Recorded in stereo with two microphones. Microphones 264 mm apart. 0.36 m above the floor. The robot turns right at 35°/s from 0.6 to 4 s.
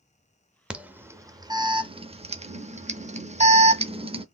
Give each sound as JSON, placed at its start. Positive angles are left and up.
{"t": 0.7, "sound": "an alarm", "side_deg": -5, "distance_m": 0.5}